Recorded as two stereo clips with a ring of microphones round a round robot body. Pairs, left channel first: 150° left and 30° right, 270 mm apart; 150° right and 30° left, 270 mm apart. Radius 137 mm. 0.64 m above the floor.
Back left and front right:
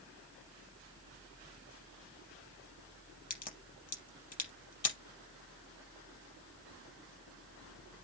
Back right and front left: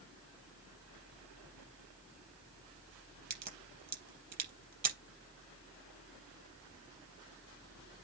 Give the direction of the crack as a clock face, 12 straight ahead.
9 o'clock.